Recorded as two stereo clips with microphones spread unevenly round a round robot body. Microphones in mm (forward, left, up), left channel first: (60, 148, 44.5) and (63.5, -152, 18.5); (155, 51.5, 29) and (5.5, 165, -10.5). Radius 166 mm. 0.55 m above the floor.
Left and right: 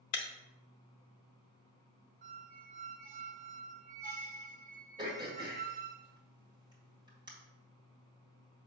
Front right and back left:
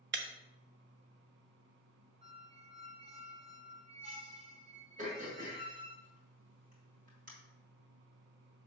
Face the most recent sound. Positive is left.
turn(degrees=-165)